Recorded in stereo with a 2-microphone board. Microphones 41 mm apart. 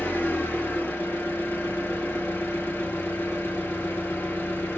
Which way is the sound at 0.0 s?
75° left (ahead or behind).